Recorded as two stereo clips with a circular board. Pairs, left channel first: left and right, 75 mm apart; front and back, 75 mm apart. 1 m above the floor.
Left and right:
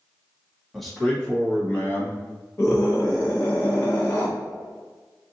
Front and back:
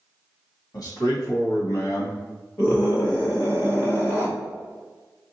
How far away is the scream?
About 1.0 m.